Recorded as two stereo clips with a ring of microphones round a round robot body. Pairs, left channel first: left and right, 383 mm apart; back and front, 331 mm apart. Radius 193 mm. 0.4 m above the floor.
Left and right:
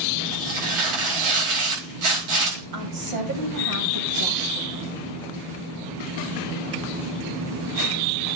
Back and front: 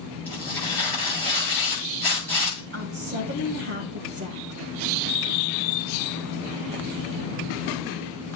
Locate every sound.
0.2 s tearing paper: 95° right, 9 m
2.7 s a woman speaking: 60° right, 3 m